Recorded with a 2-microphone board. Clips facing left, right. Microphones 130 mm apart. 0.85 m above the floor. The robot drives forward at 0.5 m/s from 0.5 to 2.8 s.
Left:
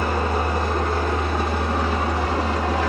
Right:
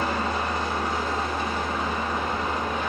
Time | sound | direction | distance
0.0 | an engine running | 50° left (ahead or behind) | 1.9 m